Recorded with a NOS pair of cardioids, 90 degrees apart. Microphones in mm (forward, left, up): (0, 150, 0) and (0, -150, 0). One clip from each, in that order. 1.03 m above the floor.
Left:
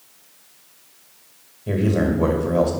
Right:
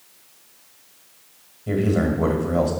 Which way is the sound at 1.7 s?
10° left.